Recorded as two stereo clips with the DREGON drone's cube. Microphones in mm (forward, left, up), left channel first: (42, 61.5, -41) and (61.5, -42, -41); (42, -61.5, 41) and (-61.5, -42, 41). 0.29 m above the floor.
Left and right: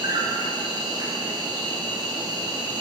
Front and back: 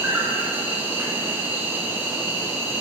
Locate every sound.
0.0 s an insect: 120° right, 2.5 m